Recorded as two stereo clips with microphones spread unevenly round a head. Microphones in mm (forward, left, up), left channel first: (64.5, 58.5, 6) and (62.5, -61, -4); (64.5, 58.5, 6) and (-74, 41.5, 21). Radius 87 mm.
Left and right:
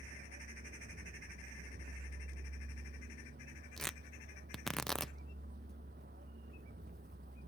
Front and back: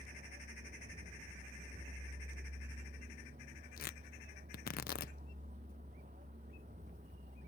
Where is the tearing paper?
Straight ahead.